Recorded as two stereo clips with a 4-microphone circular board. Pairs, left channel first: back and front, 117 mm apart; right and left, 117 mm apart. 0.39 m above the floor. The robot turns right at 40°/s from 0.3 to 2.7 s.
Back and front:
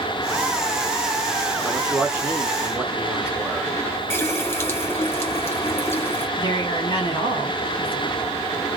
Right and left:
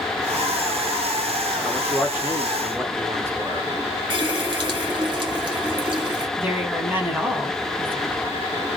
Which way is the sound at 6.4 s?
160° left.